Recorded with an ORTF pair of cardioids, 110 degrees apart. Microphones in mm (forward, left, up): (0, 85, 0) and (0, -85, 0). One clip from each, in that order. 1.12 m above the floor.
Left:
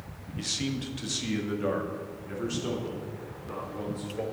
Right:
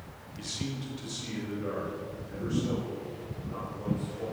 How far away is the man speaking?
About 1.0 m.